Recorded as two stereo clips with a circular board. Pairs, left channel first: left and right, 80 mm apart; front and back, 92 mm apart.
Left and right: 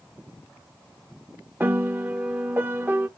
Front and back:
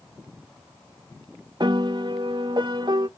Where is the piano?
155° right, 0.8 m.